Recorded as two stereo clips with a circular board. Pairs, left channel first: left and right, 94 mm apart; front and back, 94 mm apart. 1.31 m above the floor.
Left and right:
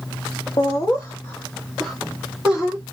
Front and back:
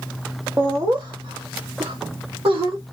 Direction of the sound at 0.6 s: 120° left.